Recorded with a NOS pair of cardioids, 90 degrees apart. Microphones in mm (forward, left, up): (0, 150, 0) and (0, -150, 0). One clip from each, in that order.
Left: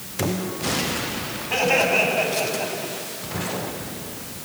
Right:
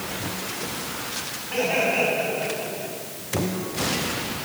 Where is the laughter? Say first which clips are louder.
Left 4 dB; 45° left, 9.5 m; by 2.9 s 40° left, 9 m.